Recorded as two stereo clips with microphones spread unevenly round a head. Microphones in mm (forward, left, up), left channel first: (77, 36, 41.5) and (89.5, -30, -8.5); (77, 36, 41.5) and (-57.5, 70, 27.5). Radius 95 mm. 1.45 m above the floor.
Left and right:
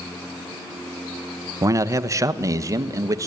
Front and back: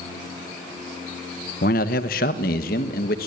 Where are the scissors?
No scissors in this recording.